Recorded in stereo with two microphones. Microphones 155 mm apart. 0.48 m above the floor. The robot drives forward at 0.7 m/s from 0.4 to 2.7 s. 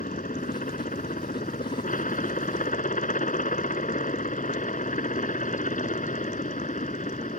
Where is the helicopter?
60° left (ahead or behind); by 7.4 s 55° left (ahead or behind).